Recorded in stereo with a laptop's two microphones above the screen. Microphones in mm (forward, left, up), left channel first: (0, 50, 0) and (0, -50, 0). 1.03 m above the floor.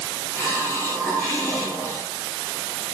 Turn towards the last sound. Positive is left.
turn(degrees=25)  # may be behind; listen again after turning